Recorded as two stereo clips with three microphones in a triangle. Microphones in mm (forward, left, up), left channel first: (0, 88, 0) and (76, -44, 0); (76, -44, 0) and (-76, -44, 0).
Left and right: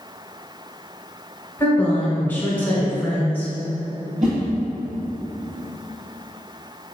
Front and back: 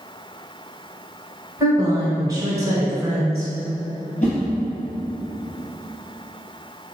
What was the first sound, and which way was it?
A woman speaking, straight behind.